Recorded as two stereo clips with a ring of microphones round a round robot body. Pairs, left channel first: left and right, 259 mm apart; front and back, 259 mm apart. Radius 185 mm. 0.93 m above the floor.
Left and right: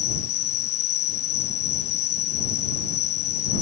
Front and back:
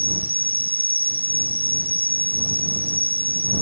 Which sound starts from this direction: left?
An insect, at 0.0 s.